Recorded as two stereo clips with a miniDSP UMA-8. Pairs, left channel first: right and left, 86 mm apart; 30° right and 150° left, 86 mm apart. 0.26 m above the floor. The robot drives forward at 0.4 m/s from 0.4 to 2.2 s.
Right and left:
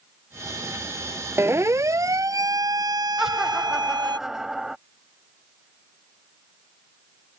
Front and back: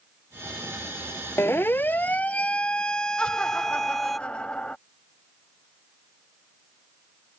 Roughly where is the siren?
Ahead left.